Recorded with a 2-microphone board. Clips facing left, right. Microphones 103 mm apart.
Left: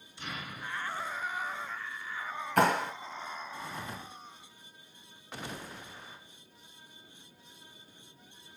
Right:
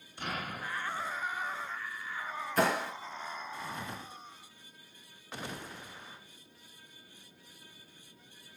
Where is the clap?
60° left (ahead or behind), 2 m.